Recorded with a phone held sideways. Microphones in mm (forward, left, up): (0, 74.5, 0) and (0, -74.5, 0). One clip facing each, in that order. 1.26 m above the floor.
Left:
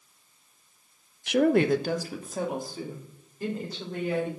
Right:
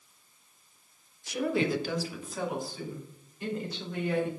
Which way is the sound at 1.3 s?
80° left.